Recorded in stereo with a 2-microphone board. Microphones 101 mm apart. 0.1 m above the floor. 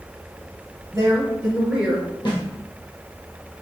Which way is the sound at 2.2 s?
45° left (ahead or behind).